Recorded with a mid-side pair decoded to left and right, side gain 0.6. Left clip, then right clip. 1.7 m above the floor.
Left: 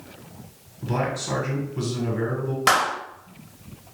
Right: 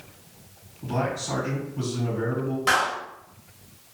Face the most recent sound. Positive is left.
turn(degrees=55)